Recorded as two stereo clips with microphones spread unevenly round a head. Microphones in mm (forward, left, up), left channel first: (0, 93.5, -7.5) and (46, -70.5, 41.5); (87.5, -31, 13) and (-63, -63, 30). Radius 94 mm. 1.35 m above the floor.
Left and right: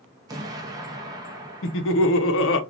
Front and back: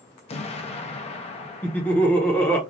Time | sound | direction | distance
0.3 | an explosion | 30° right | 0.7 m
1.6 | laughter | 95° left | 0.7 m